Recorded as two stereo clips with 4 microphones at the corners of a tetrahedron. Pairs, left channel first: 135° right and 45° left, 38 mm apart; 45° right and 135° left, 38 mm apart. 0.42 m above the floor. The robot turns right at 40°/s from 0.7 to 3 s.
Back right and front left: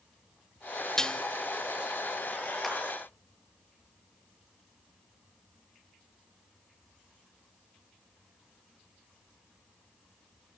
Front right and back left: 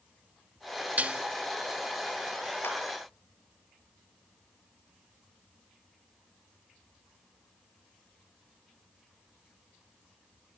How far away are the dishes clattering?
About 0.8 m.